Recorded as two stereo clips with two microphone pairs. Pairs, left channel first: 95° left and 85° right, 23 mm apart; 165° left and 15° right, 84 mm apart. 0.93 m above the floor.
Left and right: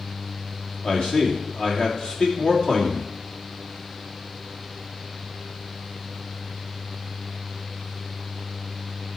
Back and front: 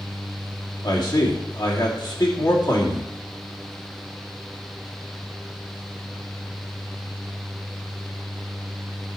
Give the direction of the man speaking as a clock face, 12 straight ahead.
7 o'clock.